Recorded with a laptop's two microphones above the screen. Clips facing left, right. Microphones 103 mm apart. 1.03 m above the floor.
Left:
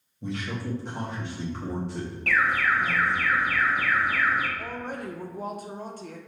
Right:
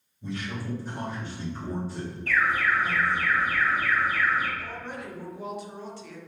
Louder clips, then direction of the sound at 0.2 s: Left 2 dB; 70° left (ahead or behind).